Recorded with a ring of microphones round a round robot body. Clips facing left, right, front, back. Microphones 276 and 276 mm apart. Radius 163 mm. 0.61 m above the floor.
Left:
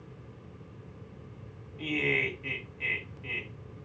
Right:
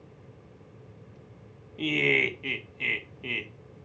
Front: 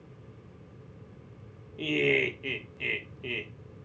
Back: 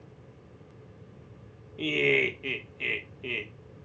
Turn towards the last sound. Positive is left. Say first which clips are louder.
# right 4 dB, even
turn(degrees=-95)